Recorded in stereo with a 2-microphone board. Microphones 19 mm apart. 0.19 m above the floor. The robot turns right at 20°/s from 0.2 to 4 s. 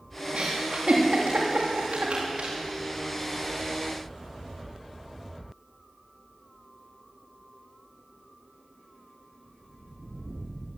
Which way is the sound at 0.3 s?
60° right (ahead or behind).